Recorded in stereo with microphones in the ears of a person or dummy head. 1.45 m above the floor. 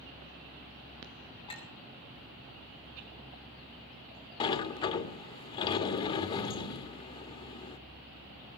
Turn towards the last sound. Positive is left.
turn(degrees=25)  # may be behind; listen again after turning